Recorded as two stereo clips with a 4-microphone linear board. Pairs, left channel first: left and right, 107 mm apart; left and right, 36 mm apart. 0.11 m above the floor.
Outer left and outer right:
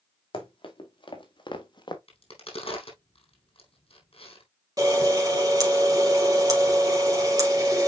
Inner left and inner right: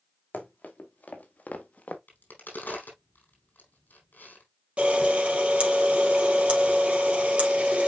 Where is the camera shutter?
35° right (ahead or behind), 3 m.